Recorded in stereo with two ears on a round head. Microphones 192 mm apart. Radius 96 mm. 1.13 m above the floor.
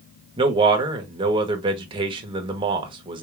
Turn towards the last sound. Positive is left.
turn(degrees=-25)  # may be behind; listen again after turning